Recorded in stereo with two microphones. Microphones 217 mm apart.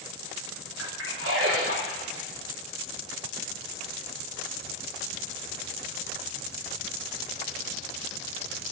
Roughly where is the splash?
Right.